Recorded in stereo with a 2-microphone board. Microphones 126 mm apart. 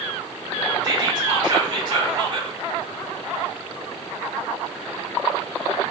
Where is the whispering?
35° right (ahead or behind), 1.6 m.